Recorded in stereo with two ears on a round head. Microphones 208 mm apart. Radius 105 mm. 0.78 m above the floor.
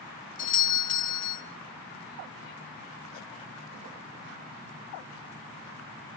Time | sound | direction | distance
0.4 | a doorbell | 35° left (ahead or behind) | 1.8 m